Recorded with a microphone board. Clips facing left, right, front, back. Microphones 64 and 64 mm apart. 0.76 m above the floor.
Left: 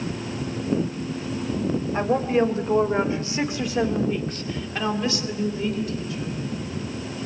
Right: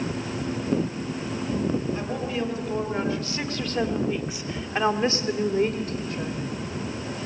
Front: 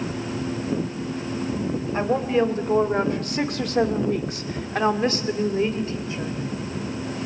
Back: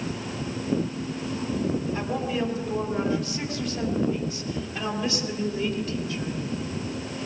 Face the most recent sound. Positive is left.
turn(degrees=-65)